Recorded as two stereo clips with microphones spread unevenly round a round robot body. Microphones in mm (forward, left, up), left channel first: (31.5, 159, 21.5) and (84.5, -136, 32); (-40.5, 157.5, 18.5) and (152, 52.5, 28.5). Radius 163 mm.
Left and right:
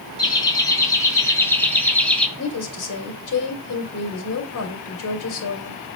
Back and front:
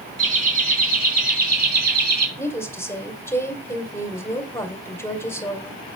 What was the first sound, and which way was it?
Laughter, 25° left.